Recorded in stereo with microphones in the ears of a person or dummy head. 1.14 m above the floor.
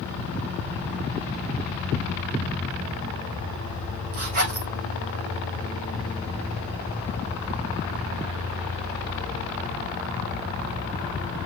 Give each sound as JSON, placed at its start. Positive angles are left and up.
{"t": 4.1, "sound": "a zipper", "side_deg": -45, "distance_m": 6.5}